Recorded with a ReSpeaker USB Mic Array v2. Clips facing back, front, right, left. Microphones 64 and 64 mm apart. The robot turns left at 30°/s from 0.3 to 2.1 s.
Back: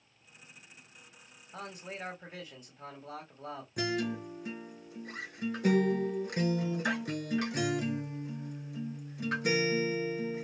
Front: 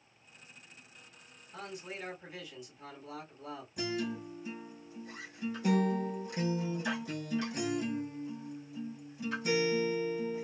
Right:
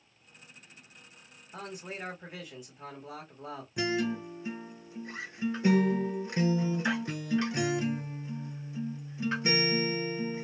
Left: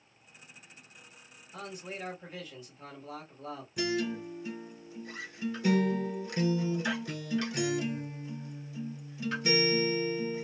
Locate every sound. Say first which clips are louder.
1.5 s a man speaking: back 1 dB, right 1 dB; 140° right, 1.6 m; by 3.7 s 155° right, 1.6 m
3.8 s a guitar: back 3 dB, right 1 dB; 155° right, 0.9 m